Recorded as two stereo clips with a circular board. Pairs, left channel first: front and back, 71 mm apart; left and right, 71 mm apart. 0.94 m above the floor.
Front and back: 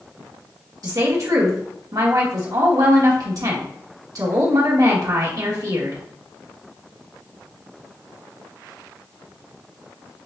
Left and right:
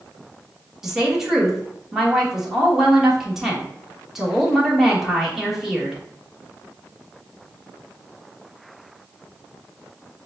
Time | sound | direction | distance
0.8 | a woman speaking | 175° right | 1.6 m